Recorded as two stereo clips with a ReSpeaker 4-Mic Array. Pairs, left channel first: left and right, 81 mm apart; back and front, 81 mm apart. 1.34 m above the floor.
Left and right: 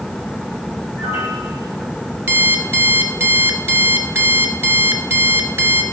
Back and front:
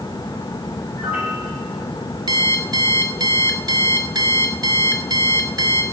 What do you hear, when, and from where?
0.9 s a piano: 85° left, 8.5 m
2.3 s an alarm clock: 30° right, 1.5 m